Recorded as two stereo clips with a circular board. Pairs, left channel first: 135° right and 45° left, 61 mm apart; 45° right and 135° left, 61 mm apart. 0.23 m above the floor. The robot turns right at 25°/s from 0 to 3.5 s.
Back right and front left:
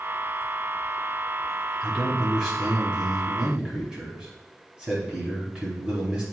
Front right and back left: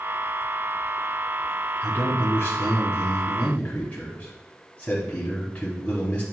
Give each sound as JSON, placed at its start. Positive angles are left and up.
{"t": 1.8, "sound": "a man speaking", "azimuth_deg": -60, "distance_m": 1.1}